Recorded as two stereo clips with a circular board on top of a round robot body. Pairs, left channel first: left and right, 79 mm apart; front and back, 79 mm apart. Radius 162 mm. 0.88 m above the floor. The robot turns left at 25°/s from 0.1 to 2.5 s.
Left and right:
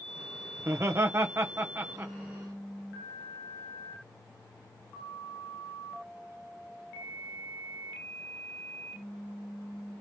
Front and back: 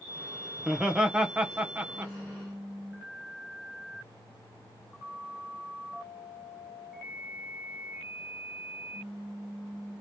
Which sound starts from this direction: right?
Laughter, at 0.6 s.